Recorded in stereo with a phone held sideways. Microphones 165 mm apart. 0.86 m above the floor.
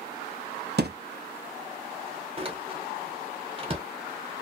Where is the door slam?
35° right (ahead or behind), 0.8 m.